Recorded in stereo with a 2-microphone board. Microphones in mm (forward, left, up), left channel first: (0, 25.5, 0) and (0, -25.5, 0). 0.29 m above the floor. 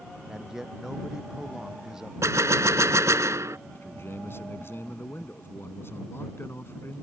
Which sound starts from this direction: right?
A gunshot, at 2.2 s.